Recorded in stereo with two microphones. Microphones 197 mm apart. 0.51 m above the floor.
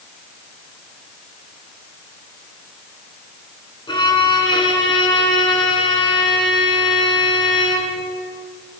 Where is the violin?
25° left (ahead or behind), 4 m.